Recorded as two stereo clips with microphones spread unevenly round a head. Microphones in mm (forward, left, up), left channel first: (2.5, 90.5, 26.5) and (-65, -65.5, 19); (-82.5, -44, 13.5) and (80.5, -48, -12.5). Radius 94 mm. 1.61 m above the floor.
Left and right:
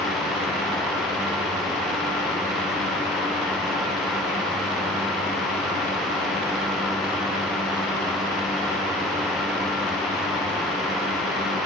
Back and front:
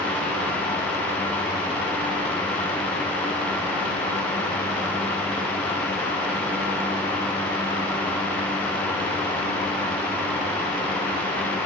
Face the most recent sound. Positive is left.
No sound to turn to.